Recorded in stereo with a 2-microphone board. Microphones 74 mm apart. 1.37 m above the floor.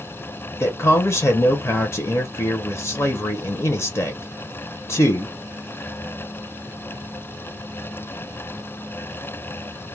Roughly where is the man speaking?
Left.